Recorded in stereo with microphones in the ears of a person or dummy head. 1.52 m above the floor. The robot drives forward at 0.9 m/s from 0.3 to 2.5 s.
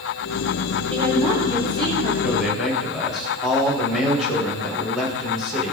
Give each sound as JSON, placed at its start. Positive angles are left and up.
{"t": 0.9, "sound": "a woman speaking", "side_deg": -25, "distance_m": 3.5}
{"t": 2.2, "sound": "a man speaking", "side_deg": -5, "distance_m": 1.8}